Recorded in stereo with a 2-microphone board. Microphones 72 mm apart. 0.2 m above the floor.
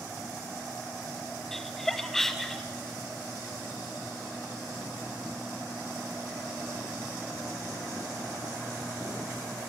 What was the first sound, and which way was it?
Laughter, 5° left (ahead or behind).